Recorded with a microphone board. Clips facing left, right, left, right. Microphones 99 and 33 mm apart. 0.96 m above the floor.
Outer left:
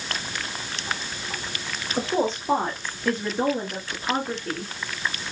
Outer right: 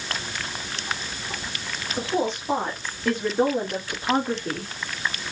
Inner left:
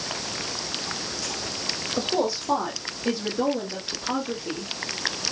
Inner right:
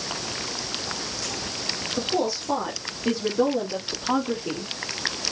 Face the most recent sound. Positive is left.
turn(degrees=-20)  # may be behind; listen again after turning